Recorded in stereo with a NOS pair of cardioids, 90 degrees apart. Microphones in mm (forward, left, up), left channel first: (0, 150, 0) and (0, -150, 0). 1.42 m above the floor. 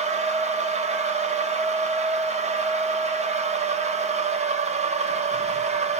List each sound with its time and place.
0.0 s a machine running: 20° right, 1.2 m